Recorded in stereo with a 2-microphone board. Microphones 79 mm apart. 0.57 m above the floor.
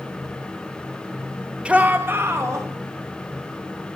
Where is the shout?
15° right (ahead or behind), 1.7 m; by 2.7 s 35° right (ahead or behind), 3 m.